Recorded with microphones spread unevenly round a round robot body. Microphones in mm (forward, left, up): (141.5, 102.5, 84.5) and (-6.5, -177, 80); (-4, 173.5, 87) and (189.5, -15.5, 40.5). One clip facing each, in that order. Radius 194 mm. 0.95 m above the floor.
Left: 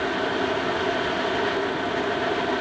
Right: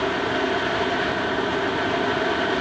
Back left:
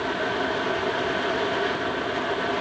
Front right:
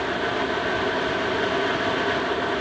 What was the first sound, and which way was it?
Only background noise.